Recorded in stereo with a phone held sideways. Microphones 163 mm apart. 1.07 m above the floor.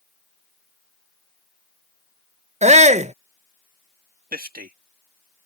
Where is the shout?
45° right (ahead or behind).